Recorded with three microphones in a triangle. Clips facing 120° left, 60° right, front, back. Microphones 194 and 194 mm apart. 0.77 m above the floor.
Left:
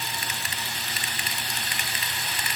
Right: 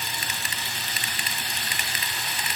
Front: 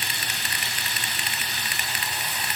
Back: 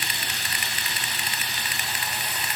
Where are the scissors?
I don't hear scissors.